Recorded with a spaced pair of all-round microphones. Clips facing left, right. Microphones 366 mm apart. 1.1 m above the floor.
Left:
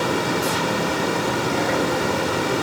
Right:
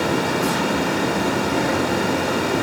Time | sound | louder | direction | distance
0.0 | a fan | right 2 dB | 65° right (ahead or behind) | 2.5 m